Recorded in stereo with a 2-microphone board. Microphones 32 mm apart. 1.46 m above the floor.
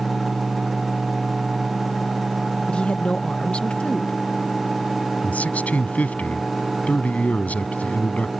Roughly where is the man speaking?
Left.